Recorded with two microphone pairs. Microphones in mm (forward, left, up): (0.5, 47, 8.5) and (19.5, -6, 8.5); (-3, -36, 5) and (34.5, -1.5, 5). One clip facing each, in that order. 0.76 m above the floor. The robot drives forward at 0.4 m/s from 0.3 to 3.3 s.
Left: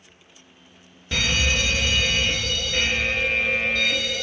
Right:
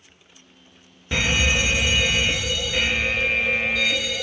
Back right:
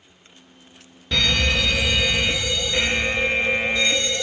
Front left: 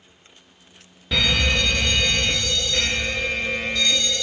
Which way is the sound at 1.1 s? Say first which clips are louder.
Right 2 dB, even; 35° right.